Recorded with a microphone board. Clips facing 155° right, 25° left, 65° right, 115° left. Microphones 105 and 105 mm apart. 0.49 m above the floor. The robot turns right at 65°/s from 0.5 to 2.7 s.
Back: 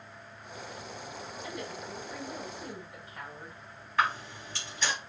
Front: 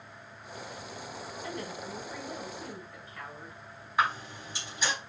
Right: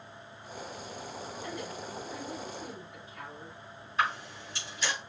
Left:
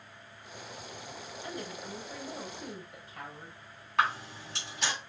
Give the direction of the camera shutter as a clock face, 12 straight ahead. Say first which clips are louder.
Even, left 2 dB; 9 o'clock.